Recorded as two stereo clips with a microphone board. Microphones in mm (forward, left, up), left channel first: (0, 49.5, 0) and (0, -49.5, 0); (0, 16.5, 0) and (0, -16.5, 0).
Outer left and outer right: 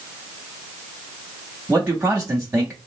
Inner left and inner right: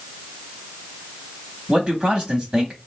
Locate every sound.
1.7 s a man speaking: 20° right (ahead or behind), 0.8 m